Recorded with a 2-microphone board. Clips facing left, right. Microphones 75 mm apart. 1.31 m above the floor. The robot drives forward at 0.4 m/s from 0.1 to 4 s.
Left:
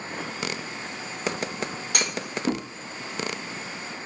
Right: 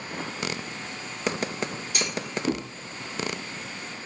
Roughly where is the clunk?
Left.